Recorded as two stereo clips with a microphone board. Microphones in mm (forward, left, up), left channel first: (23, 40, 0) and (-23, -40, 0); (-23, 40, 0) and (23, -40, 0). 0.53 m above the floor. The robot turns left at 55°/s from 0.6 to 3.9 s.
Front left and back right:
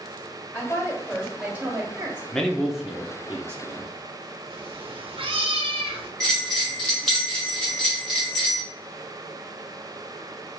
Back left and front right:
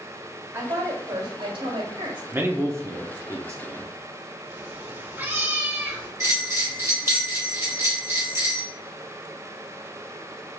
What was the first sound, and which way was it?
A woman speaking, 5° left.